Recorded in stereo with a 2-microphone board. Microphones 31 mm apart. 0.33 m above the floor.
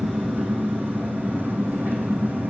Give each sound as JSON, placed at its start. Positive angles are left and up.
{"t": 0.0, "sound": "an engine running", "side_deg": -90, "distance_m": 4.0}